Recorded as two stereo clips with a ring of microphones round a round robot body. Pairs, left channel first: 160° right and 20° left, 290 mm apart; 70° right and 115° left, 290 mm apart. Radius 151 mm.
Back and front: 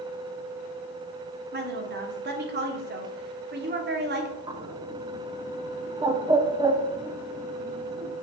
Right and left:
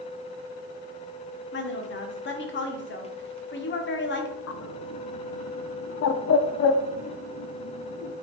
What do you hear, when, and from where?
1.5 s a woman speaking: 25° right, 1.2 m
4.5 s a bird: 50° right, 0.6 m